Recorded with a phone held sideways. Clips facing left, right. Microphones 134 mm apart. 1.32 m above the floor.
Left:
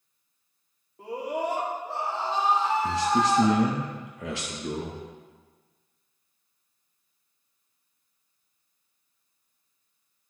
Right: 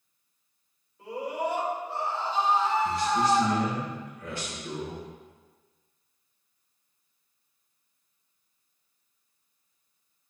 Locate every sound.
1.0 s a scream: 70° left (ahead or behind), 2.5 m; by 3.5 s 80° left, 1.9 m
2.8 s a man speaking: 80° left, 1.1 m